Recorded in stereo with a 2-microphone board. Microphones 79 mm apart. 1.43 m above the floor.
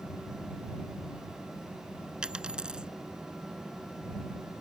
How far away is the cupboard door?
I don't hear a cupboard door.